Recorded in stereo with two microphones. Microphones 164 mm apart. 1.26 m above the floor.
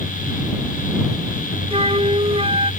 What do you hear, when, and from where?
1.7 s a flute: 40° right (ahead or behind)